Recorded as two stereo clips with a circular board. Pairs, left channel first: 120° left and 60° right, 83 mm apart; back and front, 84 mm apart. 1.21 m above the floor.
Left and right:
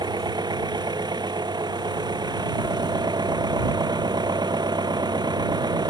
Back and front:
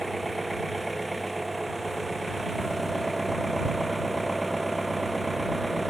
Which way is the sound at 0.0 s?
90° right.